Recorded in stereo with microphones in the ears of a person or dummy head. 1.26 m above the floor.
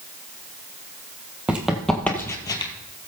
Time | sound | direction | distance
1.5 | running footsteps | 10° right (ahead or behind) | 1.8 m